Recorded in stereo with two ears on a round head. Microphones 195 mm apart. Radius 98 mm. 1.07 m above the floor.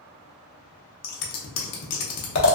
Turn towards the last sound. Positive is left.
turn(degrees=70)  # may be behind; listen again after turning